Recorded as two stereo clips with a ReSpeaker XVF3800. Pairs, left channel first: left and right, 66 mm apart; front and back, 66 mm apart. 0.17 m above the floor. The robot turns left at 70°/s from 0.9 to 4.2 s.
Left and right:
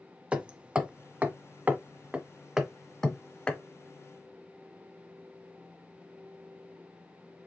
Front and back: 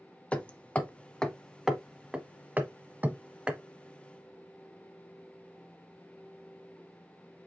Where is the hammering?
45° right, 0.7 m; by 3.6 s 130° left, 0.7 m.